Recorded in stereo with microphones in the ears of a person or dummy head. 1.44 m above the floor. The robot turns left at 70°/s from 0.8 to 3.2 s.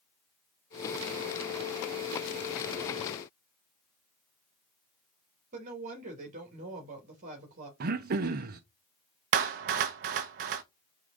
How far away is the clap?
About 0.7 m.